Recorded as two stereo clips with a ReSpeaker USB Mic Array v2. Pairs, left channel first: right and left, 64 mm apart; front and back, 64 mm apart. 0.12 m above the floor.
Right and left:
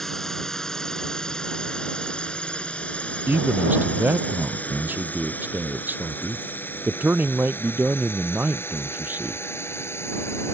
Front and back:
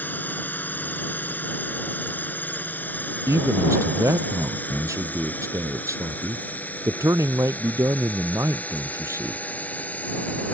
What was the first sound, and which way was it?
A drone, 10° right.